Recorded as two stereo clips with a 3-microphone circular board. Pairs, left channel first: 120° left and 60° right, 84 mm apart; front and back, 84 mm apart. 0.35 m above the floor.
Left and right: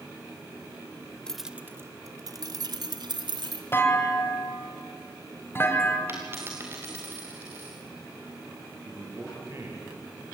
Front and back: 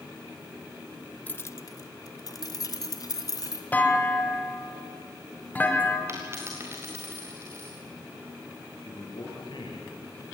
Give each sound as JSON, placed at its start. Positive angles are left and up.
{"t": 1.3, "sound": "keys jangling", "azimuth_deg": 50, "distance_m": 0.8}
{"t": 3.7, "sound": "a clunk", "azimuth_deg": 65, "distance_m": 2.5}
{"t": 6.1, "sound": "a dropped coin", "azimuth_deg": -120, "distance_m": 5.5}
{"t": 8.8, "sound": "a man speaking", "azimuth_deg": -5, "distance_m": 7.0}